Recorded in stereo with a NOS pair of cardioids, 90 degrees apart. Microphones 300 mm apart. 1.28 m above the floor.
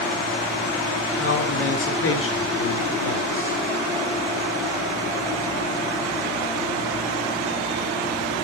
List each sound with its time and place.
1.2 s a man speaking: 50° left, 7 m